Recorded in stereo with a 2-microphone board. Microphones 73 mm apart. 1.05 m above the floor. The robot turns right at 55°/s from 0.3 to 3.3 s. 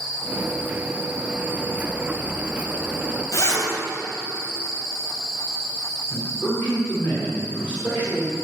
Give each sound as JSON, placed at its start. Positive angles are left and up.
{"t": 3.3, "sound": "a zipper", "side_deg": 45, "distance_m": 3.5}
{"t": 6.1, "sound": "a man speaking", "side_deg": 30, "distance_m": 3.0}